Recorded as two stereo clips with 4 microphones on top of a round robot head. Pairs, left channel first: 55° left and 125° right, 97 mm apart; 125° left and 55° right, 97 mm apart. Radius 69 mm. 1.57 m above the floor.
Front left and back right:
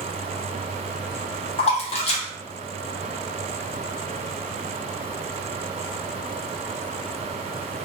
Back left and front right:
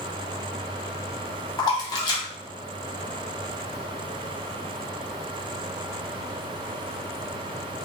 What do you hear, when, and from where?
1.6 s a splash: 70° left, 0.8 m